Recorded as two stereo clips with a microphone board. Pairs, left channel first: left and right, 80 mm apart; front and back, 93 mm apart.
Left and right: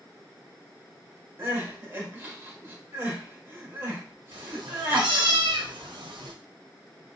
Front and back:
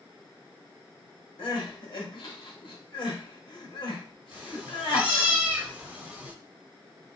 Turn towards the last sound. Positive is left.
turn(degrees=-105)